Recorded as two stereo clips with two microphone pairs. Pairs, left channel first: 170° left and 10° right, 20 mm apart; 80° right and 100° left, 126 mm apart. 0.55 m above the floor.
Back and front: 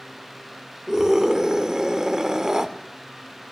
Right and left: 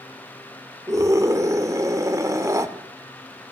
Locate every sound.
0.9 s a scream: 45° left, 1.8 m